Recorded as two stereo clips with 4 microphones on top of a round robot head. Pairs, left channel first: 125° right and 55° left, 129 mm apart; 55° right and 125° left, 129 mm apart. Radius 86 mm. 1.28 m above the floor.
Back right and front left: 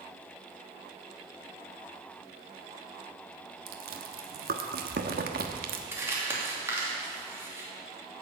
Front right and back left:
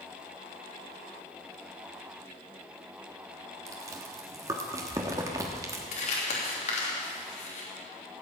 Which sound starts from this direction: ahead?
Crumpling, at 5.9 s.